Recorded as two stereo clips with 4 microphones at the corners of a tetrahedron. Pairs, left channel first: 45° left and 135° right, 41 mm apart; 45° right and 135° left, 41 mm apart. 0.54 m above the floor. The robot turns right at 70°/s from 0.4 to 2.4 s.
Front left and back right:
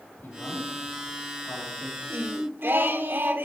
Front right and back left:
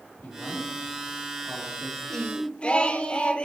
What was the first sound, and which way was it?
A man speaking, 5° left.